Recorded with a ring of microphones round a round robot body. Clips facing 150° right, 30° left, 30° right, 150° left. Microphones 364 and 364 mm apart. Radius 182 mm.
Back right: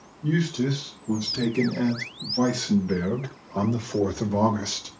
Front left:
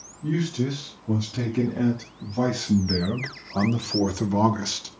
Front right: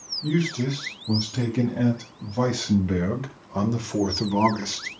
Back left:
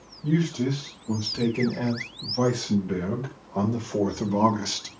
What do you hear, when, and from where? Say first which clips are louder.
0.2 s a man speaking: back right 1 dB, even; 35° right, 4 m; by 4.9 s 95° left, 1.2 m